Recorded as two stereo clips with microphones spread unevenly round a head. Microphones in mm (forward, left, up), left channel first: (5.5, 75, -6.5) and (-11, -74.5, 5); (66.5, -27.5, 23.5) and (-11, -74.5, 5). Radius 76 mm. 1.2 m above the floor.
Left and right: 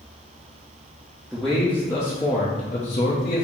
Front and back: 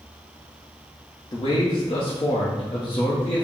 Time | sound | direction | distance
1.3 | a man speaking | 5° right | 1.0 m